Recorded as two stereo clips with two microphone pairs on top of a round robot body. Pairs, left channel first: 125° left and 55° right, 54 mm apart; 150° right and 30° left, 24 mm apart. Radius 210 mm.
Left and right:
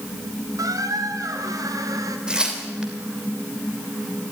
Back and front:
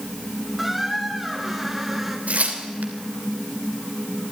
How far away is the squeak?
About 1.9 m.